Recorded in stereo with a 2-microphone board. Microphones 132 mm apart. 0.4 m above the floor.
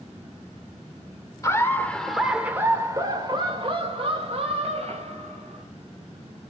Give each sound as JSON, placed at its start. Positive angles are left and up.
{"t": 1.4, "sound": "laughter", "side_deg": 25, "distance_m": 1.3}